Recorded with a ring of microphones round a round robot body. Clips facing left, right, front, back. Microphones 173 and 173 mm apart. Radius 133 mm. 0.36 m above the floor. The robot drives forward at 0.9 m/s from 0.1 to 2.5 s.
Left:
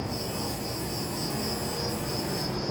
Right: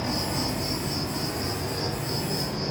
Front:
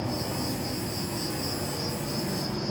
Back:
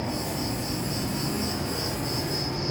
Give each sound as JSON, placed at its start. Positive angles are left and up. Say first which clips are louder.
{"t": 0.0, "sound": "an insect", "louder": "right 4 dB, back 1 dB", "azimuth_deg": -100, "distance_m": 1.3}